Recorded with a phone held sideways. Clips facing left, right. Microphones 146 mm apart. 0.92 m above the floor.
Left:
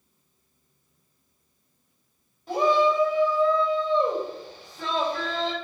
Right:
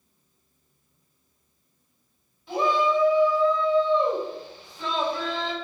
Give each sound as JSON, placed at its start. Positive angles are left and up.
{"t": 2.5, "sound": "a shout", "side_deg": 45, "distance_m": 4.0}